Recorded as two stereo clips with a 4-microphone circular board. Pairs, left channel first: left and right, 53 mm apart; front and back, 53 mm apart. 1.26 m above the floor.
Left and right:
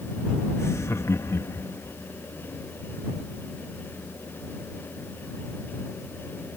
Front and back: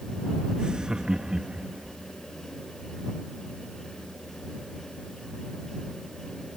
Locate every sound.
0.6 s laughter: 110° left